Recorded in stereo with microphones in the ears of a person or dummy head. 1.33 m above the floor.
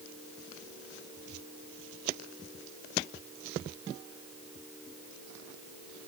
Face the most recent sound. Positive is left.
No sound to turn to.